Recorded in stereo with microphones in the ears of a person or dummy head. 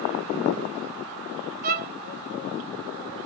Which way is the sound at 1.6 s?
45° right (ahead or behind).